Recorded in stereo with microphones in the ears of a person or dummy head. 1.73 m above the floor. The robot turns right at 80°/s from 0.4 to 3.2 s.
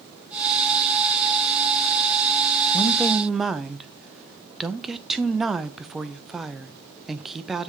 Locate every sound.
2.7 s a woman speaking: 150° left, 0.6 m; by 7.7 s 175° right, 0.6 m